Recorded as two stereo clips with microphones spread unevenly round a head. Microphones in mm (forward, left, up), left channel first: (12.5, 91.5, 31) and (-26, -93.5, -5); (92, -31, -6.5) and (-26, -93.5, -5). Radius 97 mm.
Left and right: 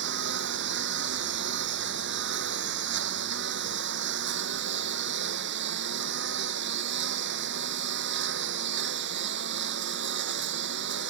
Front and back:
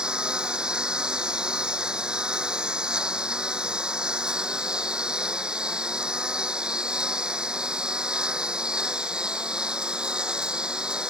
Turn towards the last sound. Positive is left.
turn(degrees=-70)